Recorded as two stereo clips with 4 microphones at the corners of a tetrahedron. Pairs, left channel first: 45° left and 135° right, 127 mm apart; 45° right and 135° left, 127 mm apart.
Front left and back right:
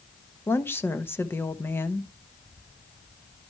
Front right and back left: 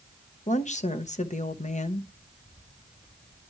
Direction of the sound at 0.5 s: 25° right.